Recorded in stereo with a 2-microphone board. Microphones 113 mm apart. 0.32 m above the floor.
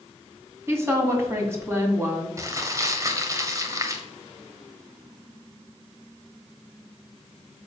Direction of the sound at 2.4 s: 30° right (ahead or behind).